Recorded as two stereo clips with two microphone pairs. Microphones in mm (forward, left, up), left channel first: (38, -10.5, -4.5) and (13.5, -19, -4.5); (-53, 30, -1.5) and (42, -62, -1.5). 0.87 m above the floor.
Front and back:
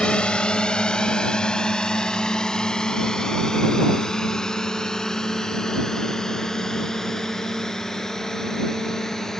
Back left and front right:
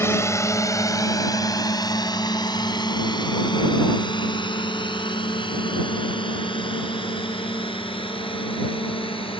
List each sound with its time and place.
0.0 s a drone: 65° left; by 9.4 s 90° left